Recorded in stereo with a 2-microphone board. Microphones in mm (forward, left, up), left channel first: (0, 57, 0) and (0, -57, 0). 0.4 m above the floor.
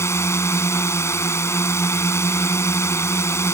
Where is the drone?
25° left (ahead or behind).